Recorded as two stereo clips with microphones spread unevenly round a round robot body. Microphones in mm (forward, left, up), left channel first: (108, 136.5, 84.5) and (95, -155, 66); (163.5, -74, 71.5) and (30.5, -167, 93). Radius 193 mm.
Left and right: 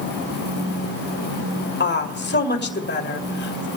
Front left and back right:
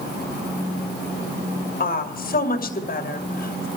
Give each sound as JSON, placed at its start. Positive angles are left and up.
{"t": 1.8, "sound": "a woman speaking", "azimuth_deg": 35, "distance_m": 2.5}